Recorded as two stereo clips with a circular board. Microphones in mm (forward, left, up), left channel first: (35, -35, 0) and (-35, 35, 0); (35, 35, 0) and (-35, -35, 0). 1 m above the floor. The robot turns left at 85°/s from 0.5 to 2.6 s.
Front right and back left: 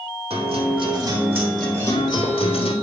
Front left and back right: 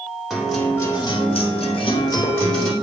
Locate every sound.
0.3 s a guitar: 135° left, 2.5 m; by 2.7 s 40° right, 2.5 m